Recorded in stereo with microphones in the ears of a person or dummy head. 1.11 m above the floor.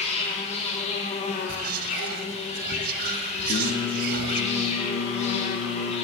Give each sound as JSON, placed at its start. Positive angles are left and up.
{"t": 0.0, "sound": "an insect", "side_deg": 35, "distance_m": 1.1}
{"t": 1.5, "sound": "whispering", "side_deg": -60, "distance_m": 0.8}
{"t": 3.5, "sound": "singing", "side_deg": 85, "distance_m": 1.3}